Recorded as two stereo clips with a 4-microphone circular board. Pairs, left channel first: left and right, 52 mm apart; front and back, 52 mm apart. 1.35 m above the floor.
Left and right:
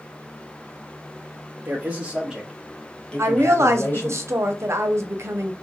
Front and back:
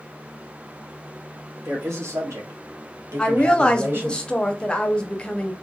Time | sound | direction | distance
1.6 | a man speaking | 145° right | 1.0 m
3.2 | a woman speaking | 70° right | 0.5 m